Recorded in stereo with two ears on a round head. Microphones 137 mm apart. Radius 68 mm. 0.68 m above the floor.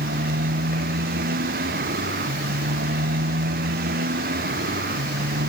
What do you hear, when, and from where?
0.0 s a motorcycle: 65° right (ahead or behind)